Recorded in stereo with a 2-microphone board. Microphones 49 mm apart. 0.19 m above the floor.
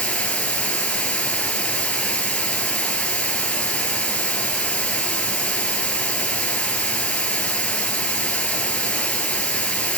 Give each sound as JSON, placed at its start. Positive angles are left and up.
{"t": 0.0, "sound": "running water", "side_deg": 25, "distance_m": 1.7}